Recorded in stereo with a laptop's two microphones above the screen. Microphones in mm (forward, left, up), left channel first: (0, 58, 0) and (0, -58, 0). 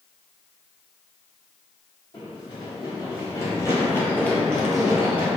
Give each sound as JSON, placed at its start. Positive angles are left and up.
{"t": 2.1, "sound": "running footsteps", "side_deg": 50, "distance_m": 1.8}